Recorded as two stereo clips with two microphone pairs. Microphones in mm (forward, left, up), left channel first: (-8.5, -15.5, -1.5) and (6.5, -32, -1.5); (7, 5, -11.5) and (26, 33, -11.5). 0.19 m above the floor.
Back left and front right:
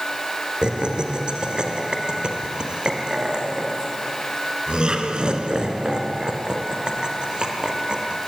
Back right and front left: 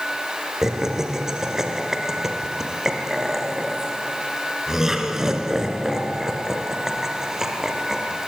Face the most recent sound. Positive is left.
turn(degrees=-15)